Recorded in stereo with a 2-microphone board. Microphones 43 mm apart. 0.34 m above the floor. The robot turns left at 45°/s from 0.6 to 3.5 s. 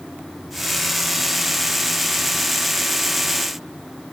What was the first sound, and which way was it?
Only background noise.